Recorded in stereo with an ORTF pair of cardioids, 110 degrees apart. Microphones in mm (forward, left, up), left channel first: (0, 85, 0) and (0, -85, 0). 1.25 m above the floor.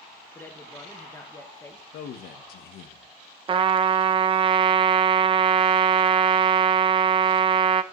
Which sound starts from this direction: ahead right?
A trumpet, at 3.5 s.